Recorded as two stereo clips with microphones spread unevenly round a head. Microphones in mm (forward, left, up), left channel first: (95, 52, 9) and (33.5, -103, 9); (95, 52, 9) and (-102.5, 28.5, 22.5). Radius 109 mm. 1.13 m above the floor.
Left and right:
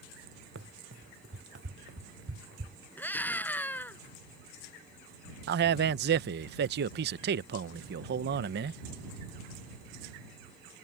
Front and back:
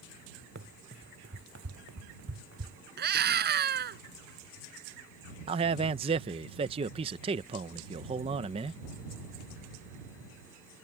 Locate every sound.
0.6 s running footsteps: 130° right; by 2.8 s 150° right
3.0 s a scream: 150° left
5.5 s a man speaking: 110° right